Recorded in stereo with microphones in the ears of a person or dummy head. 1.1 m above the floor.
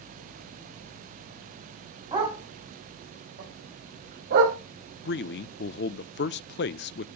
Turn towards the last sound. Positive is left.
turn(degrees=45)  # may be behind; listen again after turning